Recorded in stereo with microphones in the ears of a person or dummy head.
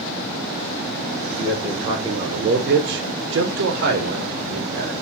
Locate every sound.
1.3 s a man speaking: 10° right (ahead or behind), 0.8 m; by 4.9 s 45° right (ahead or behind), 1.3 m